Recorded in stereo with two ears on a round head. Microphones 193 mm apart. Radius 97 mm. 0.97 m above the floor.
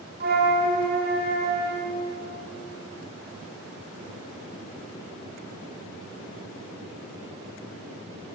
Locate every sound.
0.2 s a flute: 45° right (ahead or behind), 1.0 m